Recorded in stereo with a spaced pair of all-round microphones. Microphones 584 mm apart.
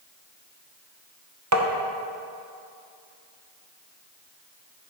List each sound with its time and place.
1.5 s tapping: 30° right (ahead or behind), 0.7 m